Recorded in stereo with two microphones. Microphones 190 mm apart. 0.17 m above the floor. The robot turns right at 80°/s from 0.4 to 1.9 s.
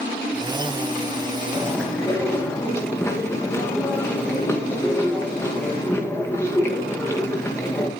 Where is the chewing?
15° right (ahead or behind), 4 m; by 7.9 s 15° left (ahead or behind), 4 m.